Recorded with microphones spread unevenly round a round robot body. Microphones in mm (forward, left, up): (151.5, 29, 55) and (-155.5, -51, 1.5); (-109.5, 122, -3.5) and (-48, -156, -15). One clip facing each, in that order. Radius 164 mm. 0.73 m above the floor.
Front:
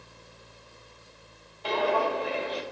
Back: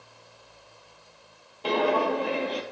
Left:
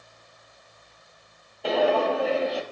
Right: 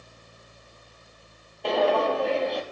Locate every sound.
1.6 s footsteps: 175° right, 0.8 m